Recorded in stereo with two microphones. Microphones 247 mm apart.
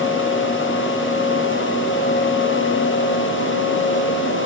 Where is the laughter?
I don't hear laughter.